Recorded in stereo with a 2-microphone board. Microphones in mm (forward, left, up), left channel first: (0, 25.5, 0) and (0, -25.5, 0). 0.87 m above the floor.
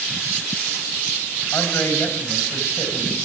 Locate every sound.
1.5 s a man speaking: 60° left (ahead or behind), 5 m